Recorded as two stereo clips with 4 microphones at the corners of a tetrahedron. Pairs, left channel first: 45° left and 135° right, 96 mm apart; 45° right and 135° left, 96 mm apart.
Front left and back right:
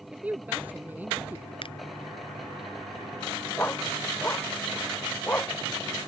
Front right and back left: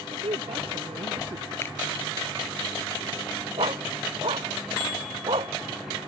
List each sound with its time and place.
0.1 s a woman speaking: 150° left; by 1.5 s 155° left
1.6 s a finger snap: 20° left
3.6 s a dog barking: 115° left